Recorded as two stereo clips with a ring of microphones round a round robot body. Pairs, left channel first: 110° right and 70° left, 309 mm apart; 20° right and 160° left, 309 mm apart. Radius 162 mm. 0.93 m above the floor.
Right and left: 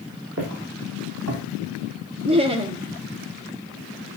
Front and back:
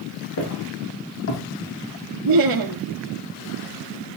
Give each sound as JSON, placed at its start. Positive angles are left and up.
{"t": 0.4, "sound": "footsteps", "azimuth_deg": 20, "distance_m": 6.5}
{"t": 2.2, "sound": "laughter", "azimuth_deg": 140, "distance_m": 1.7}